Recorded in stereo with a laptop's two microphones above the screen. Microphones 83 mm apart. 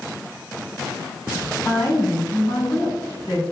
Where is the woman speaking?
45° left (ahead or behind), 1.9 m.